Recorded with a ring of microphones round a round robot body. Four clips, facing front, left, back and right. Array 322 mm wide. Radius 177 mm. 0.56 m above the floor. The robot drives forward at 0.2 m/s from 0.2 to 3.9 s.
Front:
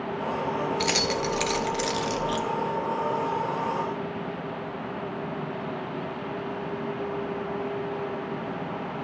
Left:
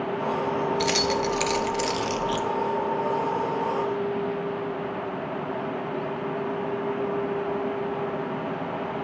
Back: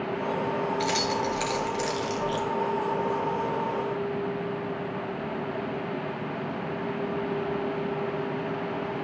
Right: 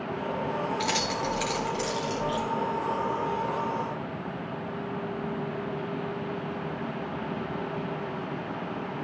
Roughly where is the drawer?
No drawer in this recording.